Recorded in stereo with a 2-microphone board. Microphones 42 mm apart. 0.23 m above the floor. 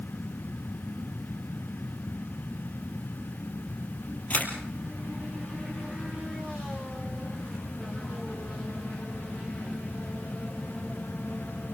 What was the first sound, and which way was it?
A camera shutter, 45° left (ahead or behind).